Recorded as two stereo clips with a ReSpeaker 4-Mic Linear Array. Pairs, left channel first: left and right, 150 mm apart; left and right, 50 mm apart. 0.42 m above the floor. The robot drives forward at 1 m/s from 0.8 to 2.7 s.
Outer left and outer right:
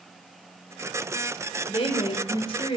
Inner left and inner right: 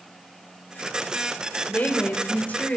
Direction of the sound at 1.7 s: 40° left (ahead or behind).